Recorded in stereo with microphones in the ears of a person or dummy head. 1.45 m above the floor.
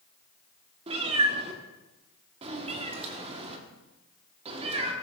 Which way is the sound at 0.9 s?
35° right (ahead or behind).